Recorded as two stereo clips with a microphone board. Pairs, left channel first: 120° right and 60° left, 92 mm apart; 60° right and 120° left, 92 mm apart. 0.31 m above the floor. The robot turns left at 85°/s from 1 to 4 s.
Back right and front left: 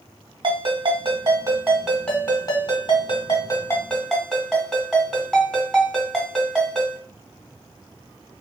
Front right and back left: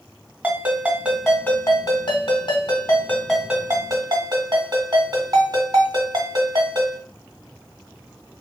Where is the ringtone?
50° left, 1.7 m; by 7.0 s 155° left, 1.7 m.